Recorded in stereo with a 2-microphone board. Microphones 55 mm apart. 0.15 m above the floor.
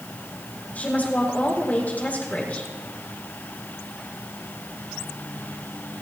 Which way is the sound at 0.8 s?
30° left (ahead or behind).